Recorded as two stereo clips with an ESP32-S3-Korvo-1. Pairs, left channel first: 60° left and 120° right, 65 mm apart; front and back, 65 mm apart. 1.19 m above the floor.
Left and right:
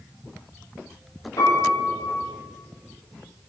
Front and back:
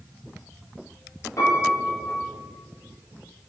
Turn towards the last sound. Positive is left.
turn(degrees=35)